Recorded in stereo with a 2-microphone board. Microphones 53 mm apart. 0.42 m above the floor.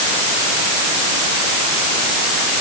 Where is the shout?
I don't hear a shout.